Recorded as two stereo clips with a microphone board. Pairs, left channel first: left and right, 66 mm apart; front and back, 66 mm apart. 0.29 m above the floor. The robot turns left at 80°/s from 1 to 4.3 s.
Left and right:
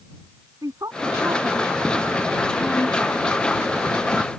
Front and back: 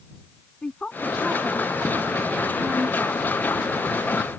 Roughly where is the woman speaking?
Right.